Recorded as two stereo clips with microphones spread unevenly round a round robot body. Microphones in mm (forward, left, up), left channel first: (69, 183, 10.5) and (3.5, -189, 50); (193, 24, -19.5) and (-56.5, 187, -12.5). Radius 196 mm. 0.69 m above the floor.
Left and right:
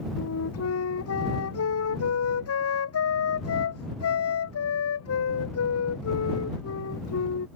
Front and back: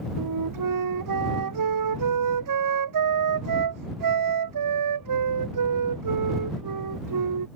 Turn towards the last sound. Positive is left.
turn(degrees=135)